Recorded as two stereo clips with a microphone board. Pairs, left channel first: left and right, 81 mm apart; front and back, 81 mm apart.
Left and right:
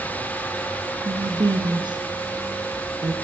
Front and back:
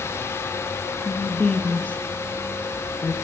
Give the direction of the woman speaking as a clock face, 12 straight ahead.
3 o'clock.